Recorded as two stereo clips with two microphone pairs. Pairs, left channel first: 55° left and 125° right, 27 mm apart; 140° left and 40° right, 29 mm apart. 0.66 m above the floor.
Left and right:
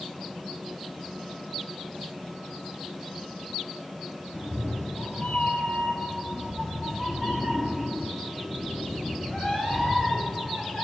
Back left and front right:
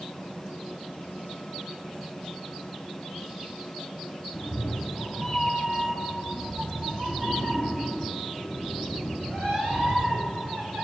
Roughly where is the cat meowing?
Left.